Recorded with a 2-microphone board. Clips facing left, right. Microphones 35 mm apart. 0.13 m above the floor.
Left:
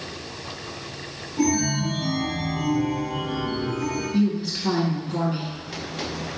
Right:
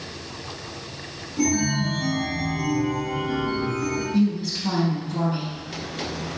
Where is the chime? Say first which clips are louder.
Even; 5° left (ahead or behind), 1.9 m.